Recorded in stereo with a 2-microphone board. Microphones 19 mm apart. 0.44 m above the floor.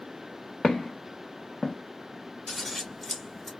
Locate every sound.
0.6 s footsteps: 70° left (ahead or behind), 1.3 m; by 1.8 s 50° left (ahead or behind), 0.6 m
2.5 s scissors: 15° left (ahead or behind), 1.2 m